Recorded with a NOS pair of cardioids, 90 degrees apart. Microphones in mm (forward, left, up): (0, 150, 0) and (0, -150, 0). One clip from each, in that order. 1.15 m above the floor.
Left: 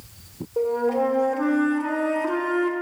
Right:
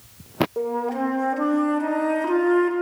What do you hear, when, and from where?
0.6 s a flute: 15° right, 1.4 m